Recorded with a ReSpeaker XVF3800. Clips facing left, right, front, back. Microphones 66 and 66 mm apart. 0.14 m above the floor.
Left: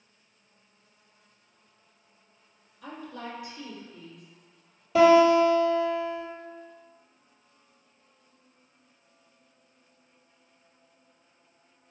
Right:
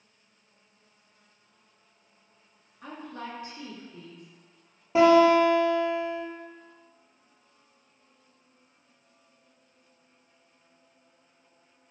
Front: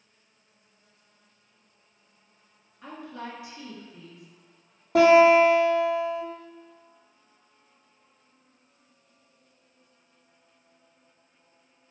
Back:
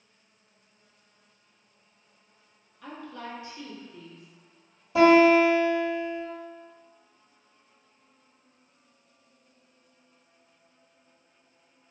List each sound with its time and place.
2.8 s a woman speaking: 65° right, 1.4 m
5.0 s a guitar: 30° right, 1.4 m